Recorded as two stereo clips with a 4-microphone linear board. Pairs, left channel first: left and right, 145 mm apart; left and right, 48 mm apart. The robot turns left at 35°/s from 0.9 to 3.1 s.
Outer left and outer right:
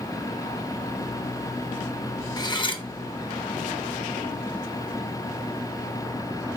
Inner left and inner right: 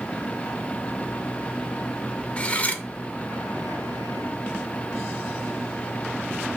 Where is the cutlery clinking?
25° left (ahead or behind), 0.6 m; by 2.8 s 35° left (ahead or behind), 0.6 m.